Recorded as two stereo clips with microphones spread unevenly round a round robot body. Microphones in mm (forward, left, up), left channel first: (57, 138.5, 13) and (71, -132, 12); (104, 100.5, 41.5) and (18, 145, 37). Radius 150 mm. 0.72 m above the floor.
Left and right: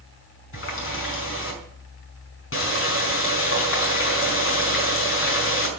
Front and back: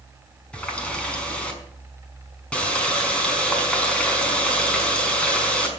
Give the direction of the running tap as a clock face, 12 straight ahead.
10 o'clock.